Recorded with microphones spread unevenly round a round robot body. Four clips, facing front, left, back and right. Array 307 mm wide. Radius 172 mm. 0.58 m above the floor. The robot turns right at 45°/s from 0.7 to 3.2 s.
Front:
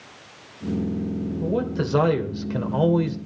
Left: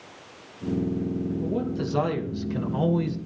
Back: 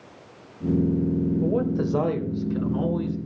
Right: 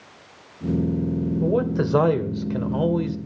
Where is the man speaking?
90° right, 2.0 m; by 3.2 s 10° right, 2.0 m.